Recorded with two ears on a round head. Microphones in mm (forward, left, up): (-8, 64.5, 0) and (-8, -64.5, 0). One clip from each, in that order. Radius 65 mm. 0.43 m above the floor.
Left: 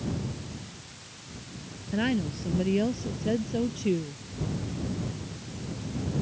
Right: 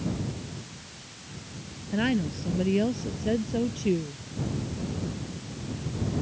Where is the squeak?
I don't hear a squeak.